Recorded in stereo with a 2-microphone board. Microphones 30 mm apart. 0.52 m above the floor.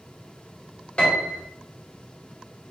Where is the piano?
40° left (ahead or behind), 1.2 m.